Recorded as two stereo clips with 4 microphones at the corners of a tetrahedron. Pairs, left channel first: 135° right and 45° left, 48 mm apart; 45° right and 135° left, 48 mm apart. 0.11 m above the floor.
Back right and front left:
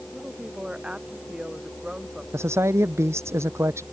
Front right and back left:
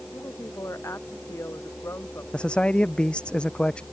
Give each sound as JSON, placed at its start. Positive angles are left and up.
{"t": 0.1, "sound": "a woman speaking", "azimuth_deg": -30}
{"t": 2.3, "sound": "a man speaking", "azimuth_deg": 25}